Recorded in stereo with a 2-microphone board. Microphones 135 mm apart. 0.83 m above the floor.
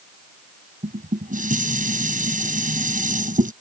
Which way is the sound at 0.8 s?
80° right.